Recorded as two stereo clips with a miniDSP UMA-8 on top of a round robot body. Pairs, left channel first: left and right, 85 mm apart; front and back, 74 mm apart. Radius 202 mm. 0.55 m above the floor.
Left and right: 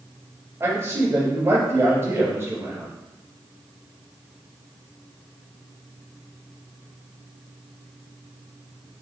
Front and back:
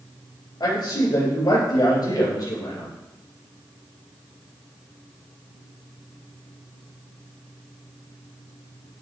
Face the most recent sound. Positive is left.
turn(degrees=-30)